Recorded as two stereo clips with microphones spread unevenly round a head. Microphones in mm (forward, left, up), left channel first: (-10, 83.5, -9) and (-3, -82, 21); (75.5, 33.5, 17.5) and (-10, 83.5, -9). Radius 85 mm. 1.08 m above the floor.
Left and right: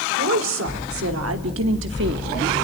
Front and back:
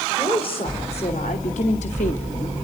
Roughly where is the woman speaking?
Right.